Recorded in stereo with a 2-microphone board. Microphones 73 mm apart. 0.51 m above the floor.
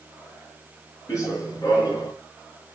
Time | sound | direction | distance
1.1 | running footsteps | 50° left (ahead or behind) | 6 m